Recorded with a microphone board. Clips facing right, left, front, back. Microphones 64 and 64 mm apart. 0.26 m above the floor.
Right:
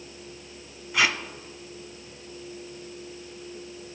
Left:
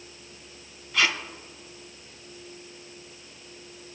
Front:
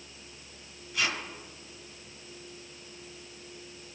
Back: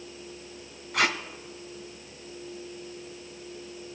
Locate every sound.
0.9 s tape being pulled: 165° right, 1.1 m